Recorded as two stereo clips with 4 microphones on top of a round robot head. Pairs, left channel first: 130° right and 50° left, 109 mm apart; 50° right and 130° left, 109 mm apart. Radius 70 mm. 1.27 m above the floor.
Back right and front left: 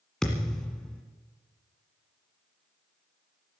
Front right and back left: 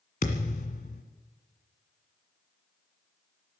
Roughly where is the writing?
No writing in this recording.